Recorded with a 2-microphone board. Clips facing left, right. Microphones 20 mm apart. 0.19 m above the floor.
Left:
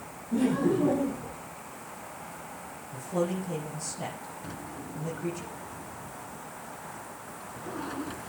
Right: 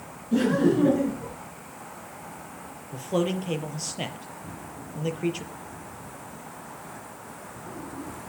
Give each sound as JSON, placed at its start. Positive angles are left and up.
{"t": 0.3, "sound": "laughter", "side_deg": -55, "distance_m": 3.0}
{"t": 2.9, "sound": "a man speaking", "side_deg": -60, "distance_m": 4.5}
{"t": 4.4, "sound": "a drawer", "side_deg": 55, "distance_m": 1.5}